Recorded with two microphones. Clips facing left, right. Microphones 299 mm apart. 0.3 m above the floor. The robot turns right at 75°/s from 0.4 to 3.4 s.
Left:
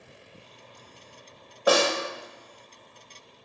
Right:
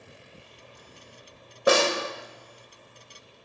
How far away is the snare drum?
About 0.8 m.